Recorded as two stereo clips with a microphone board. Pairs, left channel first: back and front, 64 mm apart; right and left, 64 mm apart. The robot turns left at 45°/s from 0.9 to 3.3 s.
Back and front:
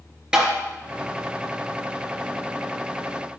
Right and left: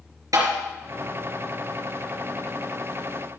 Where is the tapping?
80° left, 3.5 m.